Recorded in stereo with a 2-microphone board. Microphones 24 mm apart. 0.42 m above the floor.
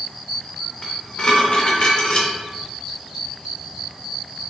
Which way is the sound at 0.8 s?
40° left (ahead or behind).